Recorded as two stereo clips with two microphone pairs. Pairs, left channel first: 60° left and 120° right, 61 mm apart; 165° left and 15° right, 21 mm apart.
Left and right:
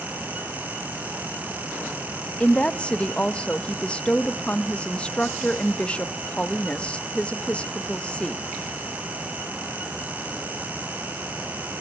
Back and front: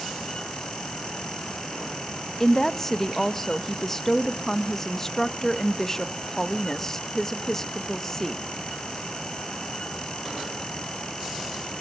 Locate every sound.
2.4 s a woman speaking: 110° left, 0.8 m